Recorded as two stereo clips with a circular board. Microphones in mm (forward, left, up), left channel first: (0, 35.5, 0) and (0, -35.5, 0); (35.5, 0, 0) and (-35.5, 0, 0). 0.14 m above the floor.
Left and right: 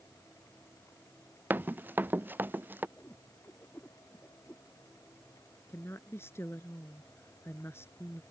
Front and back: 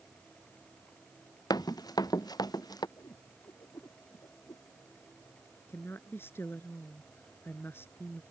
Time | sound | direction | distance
1.5 | running footsteps | 25° right | ?
3.0 | a whoosh | 30° left | ?
5.7 | a woman speaking | 45° left | ?